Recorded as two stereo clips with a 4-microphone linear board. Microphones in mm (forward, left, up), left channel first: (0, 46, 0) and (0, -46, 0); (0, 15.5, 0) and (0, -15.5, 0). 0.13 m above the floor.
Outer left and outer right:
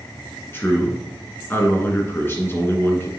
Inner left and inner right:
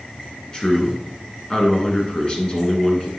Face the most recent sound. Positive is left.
turn(degrees=25)  # may be behind; listen again after turning